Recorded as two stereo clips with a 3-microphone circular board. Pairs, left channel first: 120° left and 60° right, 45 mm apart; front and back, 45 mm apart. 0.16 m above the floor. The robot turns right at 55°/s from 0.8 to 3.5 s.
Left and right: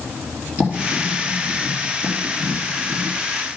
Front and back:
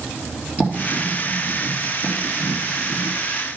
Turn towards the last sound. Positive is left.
turn(degrees=25)